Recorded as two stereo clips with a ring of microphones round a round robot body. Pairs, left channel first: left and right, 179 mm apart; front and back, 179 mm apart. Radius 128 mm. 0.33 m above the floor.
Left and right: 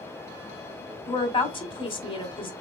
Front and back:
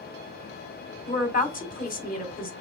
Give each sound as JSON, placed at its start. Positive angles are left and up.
{"t": 1.1, "sound": "a woman speaking", "azimuth_deg": 30, "distance_m": 2.0}